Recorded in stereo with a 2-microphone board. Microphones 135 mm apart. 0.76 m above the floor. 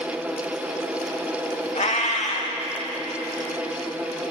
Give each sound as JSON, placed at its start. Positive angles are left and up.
{"t": 1.8, "sound": "a cat meowing", "side_deg": 65, "distance_m": 0.9}